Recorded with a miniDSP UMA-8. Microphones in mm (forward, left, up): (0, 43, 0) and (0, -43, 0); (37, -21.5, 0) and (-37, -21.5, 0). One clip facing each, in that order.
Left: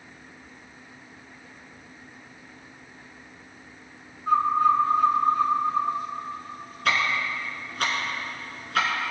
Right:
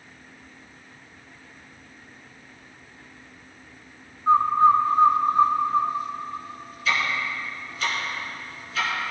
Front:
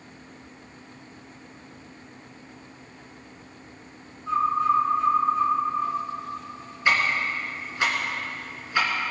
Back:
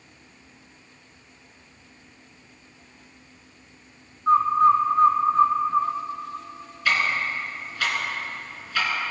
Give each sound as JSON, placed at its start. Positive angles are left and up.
{"t": 4.3, "sound": "a bird", "azimuth_deg": -145, "distance_m": 1.7}
{"t": 6.8, "sound": "ticking", "azimuth_deg": 65, "distance_m": 2.5}